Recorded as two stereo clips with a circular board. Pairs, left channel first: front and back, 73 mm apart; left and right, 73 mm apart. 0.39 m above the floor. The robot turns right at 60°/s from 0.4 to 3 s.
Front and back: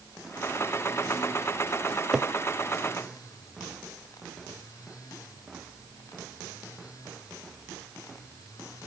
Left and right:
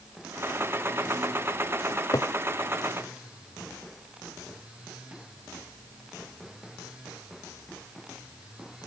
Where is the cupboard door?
85° left, 0.6 m; by 2.3 s 110° left, 0.6 m.